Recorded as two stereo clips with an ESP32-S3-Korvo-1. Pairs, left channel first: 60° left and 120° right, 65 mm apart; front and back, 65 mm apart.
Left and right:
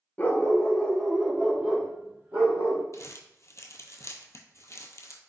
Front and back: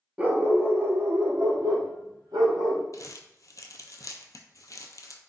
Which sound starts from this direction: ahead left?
Crumpling, at 2.9 s.